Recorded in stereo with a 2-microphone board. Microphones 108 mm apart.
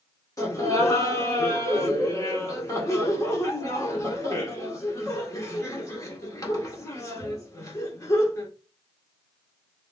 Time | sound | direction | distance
0.4 | laughter | 30° left (ahead or behind) | 1.7 m